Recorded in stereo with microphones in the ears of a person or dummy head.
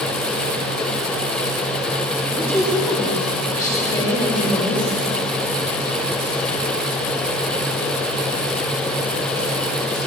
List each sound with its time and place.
2.3 s a woman speaking: 10° left (ahead or behind), 5.5 m; by 4.9 s 25° left (ahead or behind), 7 m